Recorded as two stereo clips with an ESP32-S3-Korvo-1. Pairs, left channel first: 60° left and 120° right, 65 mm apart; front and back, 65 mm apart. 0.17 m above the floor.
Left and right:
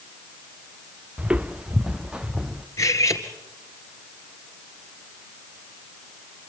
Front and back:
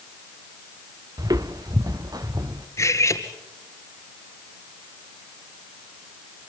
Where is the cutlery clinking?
35° left, 2 m.